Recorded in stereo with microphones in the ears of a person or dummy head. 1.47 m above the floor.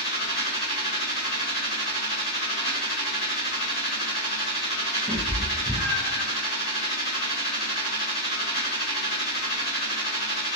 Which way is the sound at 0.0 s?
30° left (ahead or behind).